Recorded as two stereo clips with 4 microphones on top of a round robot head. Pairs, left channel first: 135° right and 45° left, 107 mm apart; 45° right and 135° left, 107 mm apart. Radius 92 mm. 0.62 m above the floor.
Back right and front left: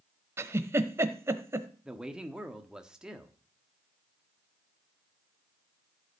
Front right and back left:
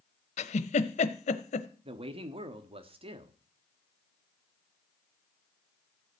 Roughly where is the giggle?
Ahead right.